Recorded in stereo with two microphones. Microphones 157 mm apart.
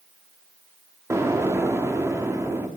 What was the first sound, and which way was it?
An explosion, 20° right (ahead or behind).